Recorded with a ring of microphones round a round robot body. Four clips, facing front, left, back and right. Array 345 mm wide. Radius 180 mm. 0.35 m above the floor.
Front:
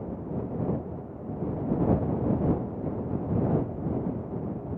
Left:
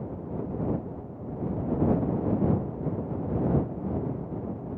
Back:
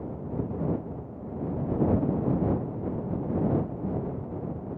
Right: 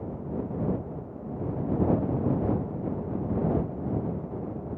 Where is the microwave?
I don't hear a microwave.